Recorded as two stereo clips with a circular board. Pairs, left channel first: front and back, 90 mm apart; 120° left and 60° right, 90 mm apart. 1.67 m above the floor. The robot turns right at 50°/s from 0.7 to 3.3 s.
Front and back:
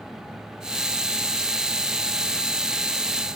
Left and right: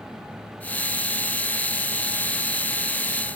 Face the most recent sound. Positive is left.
No sound to turn to.